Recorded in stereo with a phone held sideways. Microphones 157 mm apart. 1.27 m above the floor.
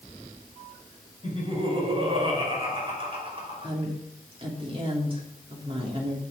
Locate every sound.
1.2 s laughter: 35° right (ahead or behind), 5 m
3.6 s a woman speaking: 35° right (ahead or behind), 3 m